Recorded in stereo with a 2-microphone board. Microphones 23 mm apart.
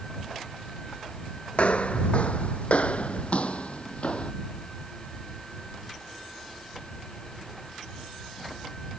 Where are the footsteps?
65° left (ahead or behind); by 4.3 s 55° left (ahead or behind).